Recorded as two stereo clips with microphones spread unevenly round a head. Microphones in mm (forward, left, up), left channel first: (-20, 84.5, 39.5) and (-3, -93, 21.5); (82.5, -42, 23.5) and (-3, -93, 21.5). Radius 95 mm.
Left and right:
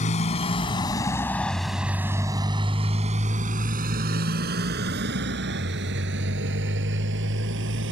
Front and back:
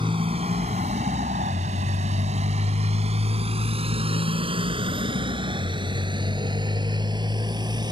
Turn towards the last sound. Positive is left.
turn(degrees=-105)